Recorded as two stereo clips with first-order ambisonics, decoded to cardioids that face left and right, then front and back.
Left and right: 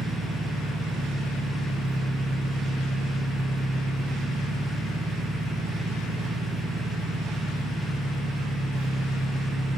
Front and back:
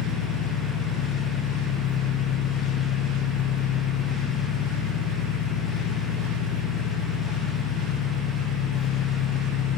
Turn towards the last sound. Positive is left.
turn(degrees=-20)